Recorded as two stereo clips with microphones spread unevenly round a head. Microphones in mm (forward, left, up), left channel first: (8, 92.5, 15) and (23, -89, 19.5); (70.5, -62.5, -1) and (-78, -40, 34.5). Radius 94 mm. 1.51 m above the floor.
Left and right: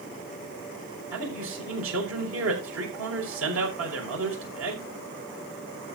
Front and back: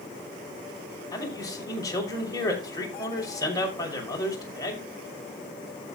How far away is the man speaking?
About 5.5 m.